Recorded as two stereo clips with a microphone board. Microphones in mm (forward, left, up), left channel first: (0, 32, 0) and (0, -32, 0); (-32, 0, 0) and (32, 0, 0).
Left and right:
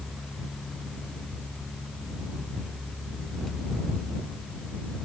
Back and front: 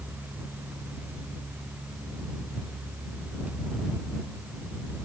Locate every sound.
Only background noise.